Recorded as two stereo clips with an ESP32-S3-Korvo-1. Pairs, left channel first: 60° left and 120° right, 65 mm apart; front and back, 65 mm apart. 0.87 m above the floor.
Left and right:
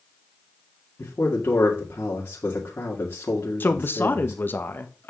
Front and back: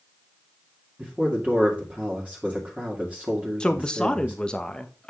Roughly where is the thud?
No thud in this recording.